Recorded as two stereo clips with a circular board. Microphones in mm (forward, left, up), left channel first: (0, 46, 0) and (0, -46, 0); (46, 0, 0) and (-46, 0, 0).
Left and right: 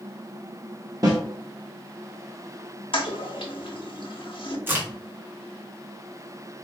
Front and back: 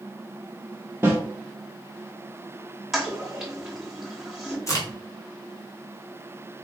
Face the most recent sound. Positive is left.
turn(degrees=-35)